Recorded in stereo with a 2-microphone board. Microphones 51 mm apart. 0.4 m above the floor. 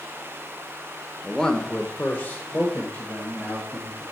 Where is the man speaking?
10° left (ahead or behind), 0.9 m; by 4.0 s 35° left (ahead or behind), 2.5 m.